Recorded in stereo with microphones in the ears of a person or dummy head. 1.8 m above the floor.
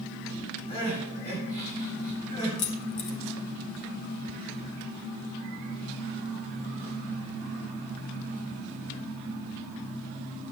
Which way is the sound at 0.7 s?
40° left (ahead or behind).